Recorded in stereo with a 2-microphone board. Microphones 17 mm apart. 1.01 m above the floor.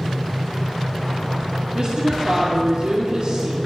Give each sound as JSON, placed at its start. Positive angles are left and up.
{"t": 1.8, "sound": "a woman speaking", "side_deg": -50, "distance_m": 2.0}